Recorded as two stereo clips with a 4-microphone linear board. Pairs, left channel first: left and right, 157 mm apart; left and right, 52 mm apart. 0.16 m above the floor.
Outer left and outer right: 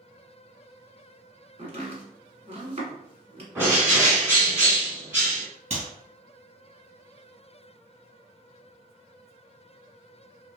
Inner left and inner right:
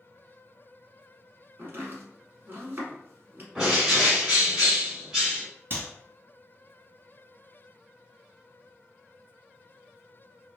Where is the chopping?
40° right (ahead or behind), 1.2 m.